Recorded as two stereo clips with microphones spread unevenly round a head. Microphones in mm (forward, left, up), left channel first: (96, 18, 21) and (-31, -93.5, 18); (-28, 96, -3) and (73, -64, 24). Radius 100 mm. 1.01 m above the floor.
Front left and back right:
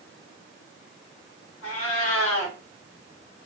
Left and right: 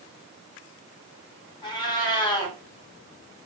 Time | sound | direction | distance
1.6 | a cat meowing | 55° left | 1.0 m